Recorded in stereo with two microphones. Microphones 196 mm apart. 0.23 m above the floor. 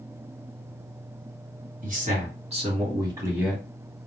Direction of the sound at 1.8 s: 45° right (ahead or behind).